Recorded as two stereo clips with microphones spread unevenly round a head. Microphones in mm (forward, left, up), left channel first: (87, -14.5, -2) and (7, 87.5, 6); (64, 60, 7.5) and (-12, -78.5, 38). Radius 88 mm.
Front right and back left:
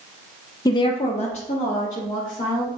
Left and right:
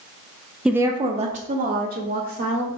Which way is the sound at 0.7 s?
20° right.